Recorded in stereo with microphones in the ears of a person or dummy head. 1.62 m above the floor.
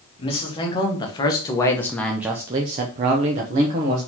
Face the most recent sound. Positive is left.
turn(degrees=-45)  # may be behind; listen again after turning